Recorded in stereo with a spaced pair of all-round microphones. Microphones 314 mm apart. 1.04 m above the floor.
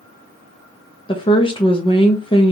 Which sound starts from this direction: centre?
A woman speaking, at 1.1 s.